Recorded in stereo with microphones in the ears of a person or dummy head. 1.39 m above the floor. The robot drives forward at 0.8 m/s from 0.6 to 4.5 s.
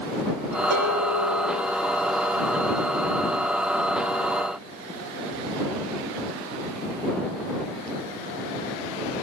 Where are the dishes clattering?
60° right (ahead or behind), 6 m; by 1.6 s 65° right (ahead or behind), 6 m.